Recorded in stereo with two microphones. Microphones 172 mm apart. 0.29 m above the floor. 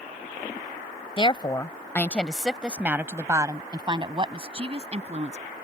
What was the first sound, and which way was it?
A woman speaking, 30° left (ahead or behind).